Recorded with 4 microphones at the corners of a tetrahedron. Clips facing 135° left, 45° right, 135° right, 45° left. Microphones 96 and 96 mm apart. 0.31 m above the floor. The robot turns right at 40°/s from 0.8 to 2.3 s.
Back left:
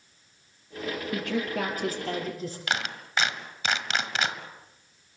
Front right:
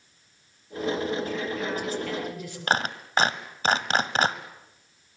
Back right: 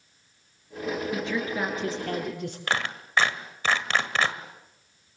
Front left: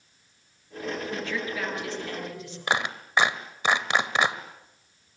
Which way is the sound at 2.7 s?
20° right.